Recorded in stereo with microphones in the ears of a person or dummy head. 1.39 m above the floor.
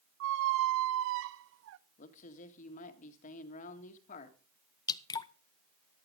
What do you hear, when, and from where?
0.2 s a squeak: 60° right (ahead or behind), 0.5 m
2.0 s a man speaking: 35° left (ahead or behind), 1.7 m
4.9 s dripping: 15° left (ahead or behind), 0.5 m